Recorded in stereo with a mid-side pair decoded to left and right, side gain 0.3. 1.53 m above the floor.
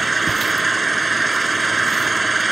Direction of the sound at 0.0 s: 30° right.